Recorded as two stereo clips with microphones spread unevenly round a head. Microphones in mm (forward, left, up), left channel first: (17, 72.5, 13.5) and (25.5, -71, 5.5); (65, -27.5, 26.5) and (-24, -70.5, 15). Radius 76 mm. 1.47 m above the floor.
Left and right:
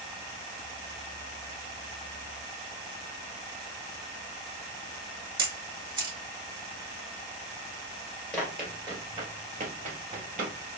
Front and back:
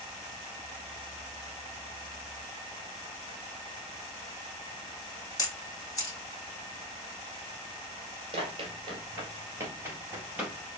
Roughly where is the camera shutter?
Ahead right.